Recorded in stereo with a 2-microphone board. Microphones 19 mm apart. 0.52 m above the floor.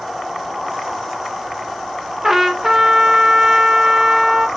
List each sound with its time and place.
2.2 s a trumpet: 20° right (ahead or behind), 0.7 m